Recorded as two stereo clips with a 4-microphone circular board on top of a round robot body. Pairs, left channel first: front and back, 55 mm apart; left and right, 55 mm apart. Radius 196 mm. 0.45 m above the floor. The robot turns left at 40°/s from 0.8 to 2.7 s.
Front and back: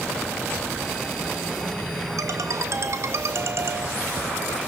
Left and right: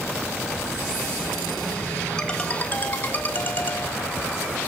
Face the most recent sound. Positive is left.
turn(degrees=145)